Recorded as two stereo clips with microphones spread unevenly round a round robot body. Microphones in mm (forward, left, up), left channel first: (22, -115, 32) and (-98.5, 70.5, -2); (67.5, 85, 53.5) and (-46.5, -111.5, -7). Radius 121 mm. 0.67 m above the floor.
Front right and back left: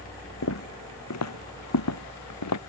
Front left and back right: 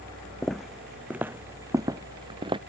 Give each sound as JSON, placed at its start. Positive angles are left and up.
{"t": 0.4, "sound": "footsteps", "azimuth_deg": -25}